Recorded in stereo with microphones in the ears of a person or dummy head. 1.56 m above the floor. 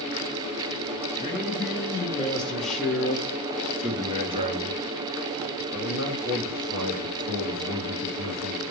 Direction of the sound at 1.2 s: 20° left (ahead or behind).